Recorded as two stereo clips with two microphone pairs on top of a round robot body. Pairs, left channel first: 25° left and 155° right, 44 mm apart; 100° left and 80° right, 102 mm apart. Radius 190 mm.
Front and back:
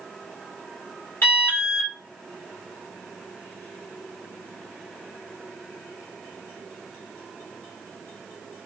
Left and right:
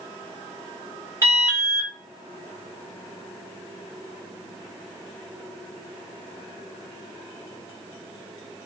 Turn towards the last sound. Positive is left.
turn(degrees=-15)